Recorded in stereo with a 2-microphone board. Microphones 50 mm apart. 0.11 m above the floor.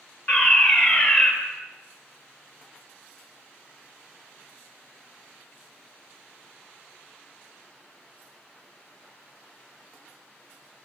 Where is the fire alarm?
35° left (ahead or behind), 4 m.